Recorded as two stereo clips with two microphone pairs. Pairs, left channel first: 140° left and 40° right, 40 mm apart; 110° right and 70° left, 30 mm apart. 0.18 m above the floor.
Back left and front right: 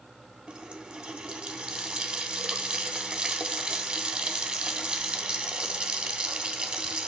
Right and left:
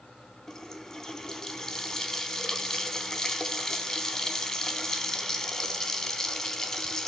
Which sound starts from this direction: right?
A running tap, at 0.5 s.